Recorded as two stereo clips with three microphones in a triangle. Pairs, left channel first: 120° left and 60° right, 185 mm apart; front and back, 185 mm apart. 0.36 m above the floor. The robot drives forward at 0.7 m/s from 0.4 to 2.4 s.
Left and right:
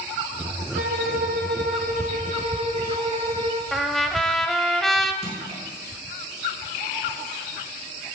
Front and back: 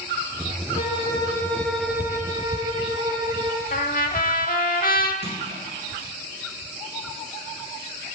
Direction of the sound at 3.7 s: 30° left.